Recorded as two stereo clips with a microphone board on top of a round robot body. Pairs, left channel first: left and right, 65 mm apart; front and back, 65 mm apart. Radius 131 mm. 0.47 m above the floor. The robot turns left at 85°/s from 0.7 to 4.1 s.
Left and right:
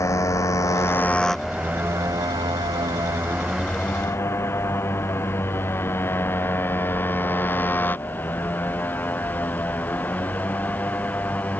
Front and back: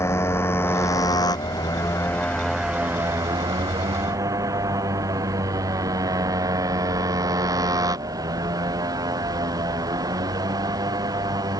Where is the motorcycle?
50° left; by 11.6 s 155° left.